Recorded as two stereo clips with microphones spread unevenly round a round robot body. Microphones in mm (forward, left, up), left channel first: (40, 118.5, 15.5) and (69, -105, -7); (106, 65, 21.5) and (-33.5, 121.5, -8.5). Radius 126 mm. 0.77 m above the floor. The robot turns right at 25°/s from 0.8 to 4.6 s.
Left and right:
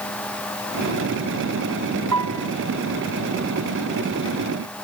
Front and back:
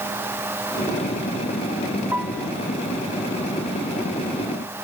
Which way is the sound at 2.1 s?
115° right.